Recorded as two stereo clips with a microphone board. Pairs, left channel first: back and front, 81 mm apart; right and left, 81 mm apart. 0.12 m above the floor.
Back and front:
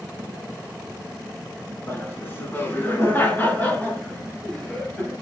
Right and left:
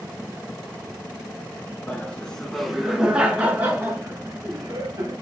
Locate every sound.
1.9 s laughter: 150° right, 1.3 m; by 5.1 s 105° left, 1.7 m